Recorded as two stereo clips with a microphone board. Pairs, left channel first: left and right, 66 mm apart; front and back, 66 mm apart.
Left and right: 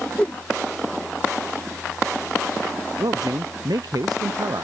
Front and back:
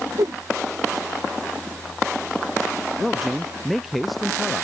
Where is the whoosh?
160° left.